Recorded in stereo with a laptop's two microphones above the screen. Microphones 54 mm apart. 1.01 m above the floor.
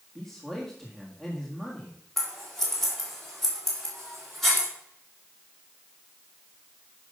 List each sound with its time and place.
0.1 s a man speaking: 5° left (ahead or behind), 1.6 m
2.2 s scissors: 5° left (ahead or behind), 2.5 m